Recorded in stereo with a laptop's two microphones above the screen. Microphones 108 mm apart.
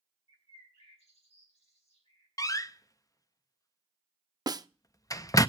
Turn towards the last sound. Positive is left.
turn(degrees=-35)  # may be behind; listen again after turning